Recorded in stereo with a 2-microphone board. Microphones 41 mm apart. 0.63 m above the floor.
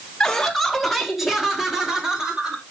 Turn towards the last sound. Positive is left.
turn(degrees=-10)  # may be behind; listen again after turning